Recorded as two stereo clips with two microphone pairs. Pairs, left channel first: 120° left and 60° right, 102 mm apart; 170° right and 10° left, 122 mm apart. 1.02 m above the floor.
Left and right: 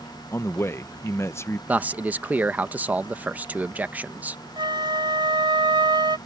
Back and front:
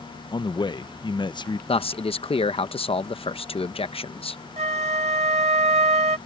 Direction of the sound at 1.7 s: 135° right.